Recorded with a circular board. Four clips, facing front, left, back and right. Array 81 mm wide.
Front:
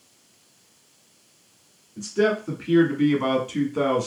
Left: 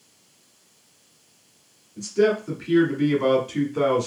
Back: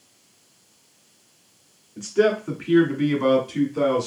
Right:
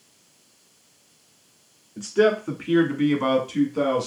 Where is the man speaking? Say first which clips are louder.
Right 1 dB, back 2 dB; 115° right, 1.8 m; by 4.1 s 40° left, 1.5 m.